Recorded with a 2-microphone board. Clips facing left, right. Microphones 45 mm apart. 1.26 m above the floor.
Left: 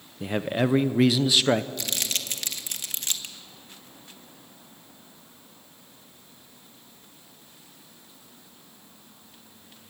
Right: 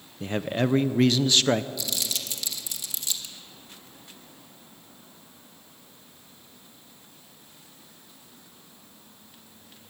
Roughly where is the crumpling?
Left.